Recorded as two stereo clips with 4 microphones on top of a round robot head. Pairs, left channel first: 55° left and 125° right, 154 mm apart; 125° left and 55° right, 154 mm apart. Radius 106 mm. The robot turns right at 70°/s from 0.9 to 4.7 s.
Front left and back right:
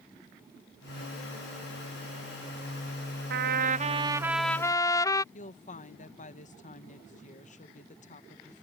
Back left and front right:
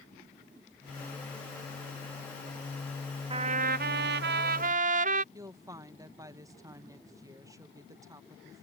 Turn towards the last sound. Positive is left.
turn(degrees=15)